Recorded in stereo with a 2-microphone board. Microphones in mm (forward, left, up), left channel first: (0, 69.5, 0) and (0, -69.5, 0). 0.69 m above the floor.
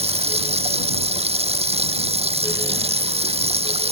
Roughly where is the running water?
Right.